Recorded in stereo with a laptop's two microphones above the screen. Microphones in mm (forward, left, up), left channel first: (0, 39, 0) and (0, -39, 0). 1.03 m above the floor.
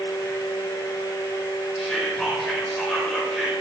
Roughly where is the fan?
Left.